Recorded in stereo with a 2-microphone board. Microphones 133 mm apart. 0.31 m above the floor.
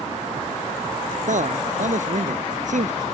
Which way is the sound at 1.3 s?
70° right (ahead or behind).